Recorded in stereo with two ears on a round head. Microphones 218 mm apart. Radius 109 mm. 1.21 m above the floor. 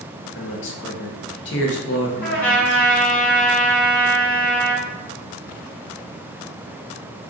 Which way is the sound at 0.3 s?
50° left (ahead or behind).